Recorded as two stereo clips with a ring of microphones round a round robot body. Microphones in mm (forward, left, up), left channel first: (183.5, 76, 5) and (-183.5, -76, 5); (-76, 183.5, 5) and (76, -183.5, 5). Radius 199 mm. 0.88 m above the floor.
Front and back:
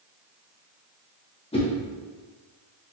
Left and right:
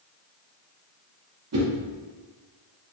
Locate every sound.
1.5 s a whoosh: 45° right, 0.9 m